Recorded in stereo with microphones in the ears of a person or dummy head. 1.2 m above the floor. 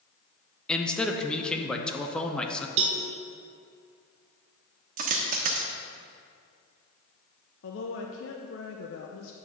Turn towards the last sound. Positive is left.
turn(degrees=65)  # may be behind; listen again after turning